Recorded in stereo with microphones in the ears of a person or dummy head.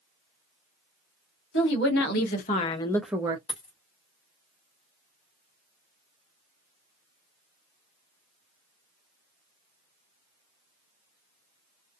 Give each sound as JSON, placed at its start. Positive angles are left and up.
{"t": 1.5, "sound": "a woman speaking", "side_deg": 65, "distance_m": 1.2}
{"t": 3.5, "sound": "a dropped coin", "side_deg": 25, "distance_m": 1.0}